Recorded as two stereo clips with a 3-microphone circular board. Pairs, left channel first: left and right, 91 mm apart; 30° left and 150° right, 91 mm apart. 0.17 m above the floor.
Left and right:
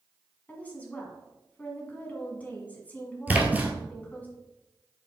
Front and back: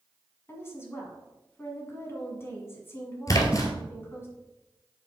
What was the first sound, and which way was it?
A woman speaking, 40° left.